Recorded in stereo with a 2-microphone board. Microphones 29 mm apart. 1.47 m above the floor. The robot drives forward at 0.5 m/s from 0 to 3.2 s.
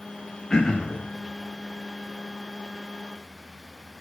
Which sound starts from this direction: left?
Throat clearing, at 0.5 s.